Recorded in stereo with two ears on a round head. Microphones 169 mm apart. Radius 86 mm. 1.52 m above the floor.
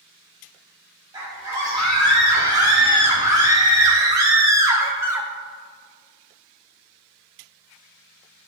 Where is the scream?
20° right (ahead or behind), 3.5 m; by 5.3 s 10° right (ahead or behind), 1.0 m.